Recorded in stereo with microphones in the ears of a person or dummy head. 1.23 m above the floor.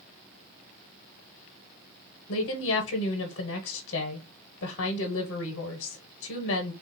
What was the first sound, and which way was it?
A woman speaking, 55° left (ahead or behind).